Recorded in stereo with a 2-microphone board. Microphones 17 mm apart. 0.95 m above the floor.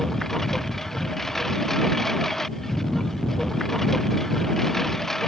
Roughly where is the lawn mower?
Left.